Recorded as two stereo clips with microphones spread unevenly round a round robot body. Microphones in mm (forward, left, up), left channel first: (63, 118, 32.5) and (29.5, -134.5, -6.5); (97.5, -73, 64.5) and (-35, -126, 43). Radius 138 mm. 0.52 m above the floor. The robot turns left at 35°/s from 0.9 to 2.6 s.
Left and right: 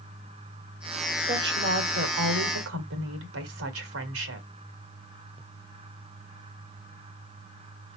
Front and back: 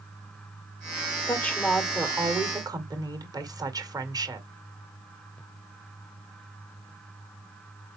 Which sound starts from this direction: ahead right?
A woman speaking, at 1.3 s.